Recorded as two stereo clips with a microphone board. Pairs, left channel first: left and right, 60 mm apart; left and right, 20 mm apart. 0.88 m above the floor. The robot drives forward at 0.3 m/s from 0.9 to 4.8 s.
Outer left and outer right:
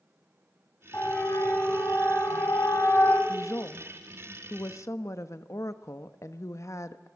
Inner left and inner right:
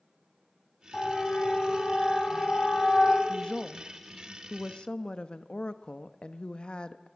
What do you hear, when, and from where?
0.9 s a siren: 40° left (ahead or behind), 7 m; by 3.2 s 35° left (ahead or behind), 8.5 m
3.3 s a woman speaking: 55° left (ahead or behind), 1.1 m